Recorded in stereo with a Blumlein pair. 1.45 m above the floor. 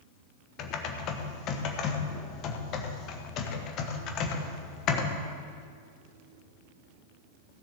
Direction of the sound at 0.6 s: 35° left.